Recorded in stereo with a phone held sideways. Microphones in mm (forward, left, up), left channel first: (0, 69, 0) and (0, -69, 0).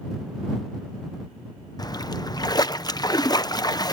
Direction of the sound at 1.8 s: 30° left (ahead or behind).